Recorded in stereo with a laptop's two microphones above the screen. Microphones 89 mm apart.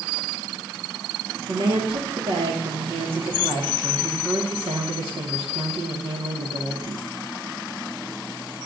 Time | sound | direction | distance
1.5 | a woman speaking | 75° right (ahead or behind) | 1.6 m